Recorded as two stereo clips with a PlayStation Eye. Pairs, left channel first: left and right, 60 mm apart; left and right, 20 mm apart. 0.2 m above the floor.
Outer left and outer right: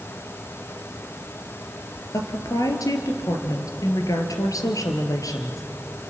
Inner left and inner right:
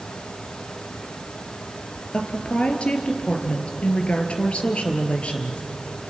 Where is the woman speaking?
70° left (ahead or behind), 3 m.